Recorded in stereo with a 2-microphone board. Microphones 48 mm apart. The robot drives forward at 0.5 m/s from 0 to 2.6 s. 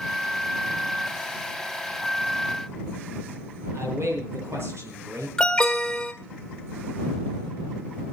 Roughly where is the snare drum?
No snare drum in this recording.